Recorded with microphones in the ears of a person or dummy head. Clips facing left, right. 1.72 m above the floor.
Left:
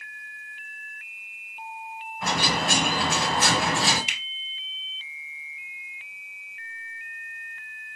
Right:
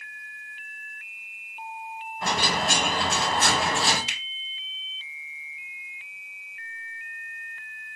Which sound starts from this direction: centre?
A finger snap, at 4.1 s.